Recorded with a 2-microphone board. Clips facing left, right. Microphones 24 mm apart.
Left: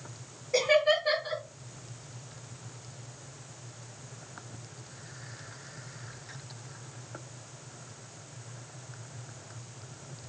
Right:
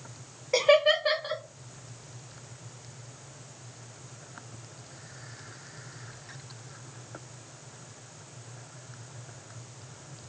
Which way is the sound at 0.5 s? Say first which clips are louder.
Right 3 dB; 55° right (ahead or behind).